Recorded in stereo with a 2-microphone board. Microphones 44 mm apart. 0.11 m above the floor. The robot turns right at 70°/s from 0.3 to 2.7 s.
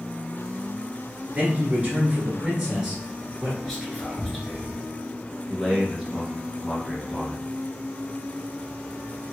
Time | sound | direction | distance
1.4 | a man speaking | 120° right | 1.2 m
3.6 | whispering | 5° left (ahead or behind) | 1.2 m
5.5 | a man speaking | 5° right (ahead or behind) | 1.1 m